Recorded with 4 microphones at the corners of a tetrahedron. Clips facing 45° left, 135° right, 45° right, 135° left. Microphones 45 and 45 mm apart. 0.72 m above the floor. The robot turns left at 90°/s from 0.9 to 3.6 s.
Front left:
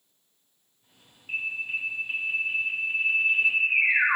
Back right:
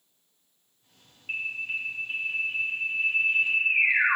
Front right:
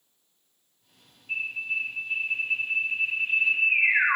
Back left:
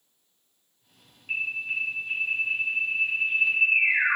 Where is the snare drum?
I don't hear a snare drum.